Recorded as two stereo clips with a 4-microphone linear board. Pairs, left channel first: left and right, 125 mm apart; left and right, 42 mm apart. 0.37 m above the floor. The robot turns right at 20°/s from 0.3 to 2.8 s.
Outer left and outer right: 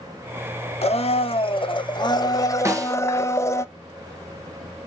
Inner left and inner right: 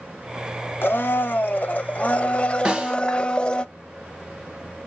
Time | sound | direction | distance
0.8 | a blender | 115° left | 0.6 m
2.6 | a snare drum | 25° right (ahead or behind) | 1.1 m